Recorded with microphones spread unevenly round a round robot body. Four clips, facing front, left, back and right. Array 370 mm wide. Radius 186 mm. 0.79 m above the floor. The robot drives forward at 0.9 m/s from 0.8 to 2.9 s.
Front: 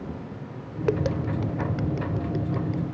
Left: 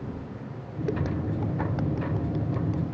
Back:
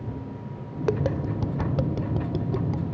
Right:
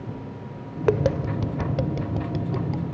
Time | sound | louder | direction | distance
0.9 | tapping | right 8 dB, front 1 dB | 75° right | ?